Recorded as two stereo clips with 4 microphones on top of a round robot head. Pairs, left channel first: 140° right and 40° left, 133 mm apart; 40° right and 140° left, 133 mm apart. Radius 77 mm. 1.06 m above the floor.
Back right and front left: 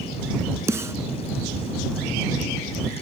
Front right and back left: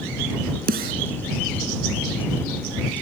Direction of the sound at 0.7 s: 115° left.